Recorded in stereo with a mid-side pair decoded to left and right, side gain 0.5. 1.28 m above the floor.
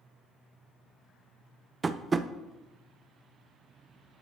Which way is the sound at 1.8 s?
25° right.